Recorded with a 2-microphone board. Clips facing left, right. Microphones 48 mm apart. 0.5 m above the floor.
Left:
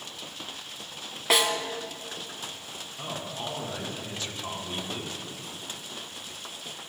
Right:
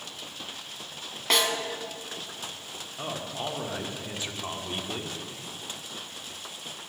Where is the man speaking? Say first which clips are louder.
Right 2 dB; 20° right (ahead or behind), 1.2 m.